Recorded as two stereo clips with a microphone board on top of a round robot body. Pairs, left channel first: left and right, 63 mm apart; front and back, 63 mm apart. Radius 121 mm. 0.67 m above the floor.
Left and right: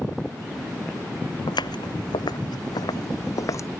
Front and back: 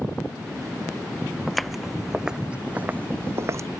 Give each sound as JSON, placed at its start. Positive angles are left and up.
{"t": 1.5, "sound": "footsteps", "azimuth_deg": 85}